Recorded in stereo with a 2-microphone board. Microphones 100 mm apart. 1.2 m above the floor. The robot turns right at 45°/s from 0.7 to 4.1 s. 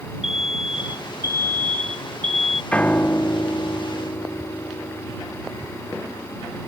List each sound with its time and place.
0.2 s an alarm: 175° right; by 2.6 s 90° right
2.7 s a piano: 20° left; by 6.4 s 85° left